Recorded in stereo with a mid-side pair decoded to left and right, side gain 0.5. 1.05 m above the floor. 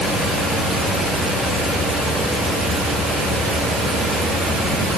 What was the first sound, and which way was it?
Only background noise.